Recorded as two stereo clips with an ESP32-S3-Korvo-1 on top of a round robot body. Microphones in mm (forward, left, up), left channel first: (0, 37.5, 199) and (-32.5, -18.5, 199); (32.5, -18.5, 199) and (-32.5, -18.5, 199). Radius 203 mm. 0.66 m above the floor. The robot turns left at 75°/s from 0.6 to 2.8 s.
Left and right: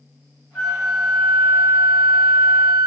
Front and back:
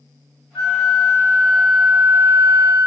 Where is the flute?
10° right, 0.6 m; by 2.9 s 175° right, 0.6 m.